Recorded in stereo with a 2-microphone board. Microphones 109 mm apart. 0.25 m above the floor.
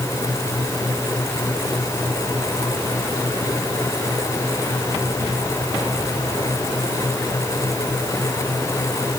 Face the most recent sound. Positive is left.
No sound to turn to.